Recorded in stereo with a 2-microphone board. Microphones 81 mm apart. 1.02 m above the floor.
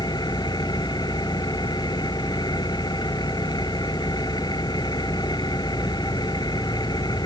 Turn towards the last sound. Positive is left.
turn(degrees=60)  # may be behind; listen again after turning